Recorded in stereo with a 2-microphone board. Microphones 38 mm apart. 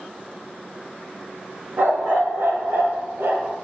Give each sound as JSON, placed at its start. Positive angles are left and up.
{"t": 1.8, "sound": "a dog barking", "side_deg": -75, "distance_m": 4.5}